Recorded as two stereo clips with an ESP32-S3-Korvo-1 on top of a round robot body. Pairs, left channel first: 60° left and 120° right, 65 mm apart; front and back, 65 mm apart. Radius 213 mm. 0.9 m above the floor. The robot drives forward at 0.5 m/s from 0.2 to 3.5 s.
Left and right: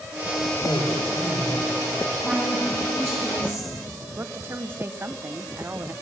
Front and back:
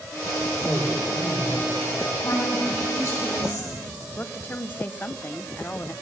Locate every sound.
0.6 s a man speaking: 60° left, 5 m; by 2.1 s 70° left, 4.5 m
2.2 s a woman speaking: 30° right, 9.5 m; by 3.7 s 35° right, 9 m
4.2 s a woman speaking: 60° right, 1.0 m